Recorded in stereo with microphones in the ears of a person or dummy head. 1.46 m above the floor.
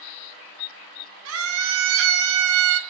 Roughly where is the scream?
Right.